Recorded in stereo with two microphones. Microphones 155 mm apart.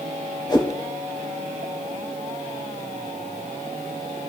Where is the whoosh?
30° left (ahead or behind), 1.2 m.